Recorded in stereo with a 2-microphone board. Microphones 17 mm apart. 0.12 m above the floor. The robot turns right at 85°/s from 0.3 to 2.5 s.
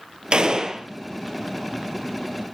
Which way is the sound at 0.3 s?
65° right.